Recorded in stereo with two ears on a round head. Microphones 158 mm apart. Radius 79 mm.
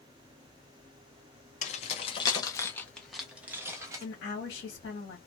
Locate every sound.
1.6 s keys jangling: 40° left (ahead or behind), 1.0 m; by 4.0 s 20° right (ahead or behind), 1.2 m
4.0 s a woman speaking: 65° left (ahead or behind), 2.0 m